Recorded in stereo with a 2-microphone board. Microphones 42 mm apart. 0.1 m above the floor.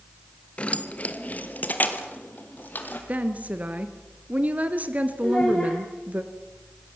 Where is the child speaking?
20° left (ahead or behind), 5 m.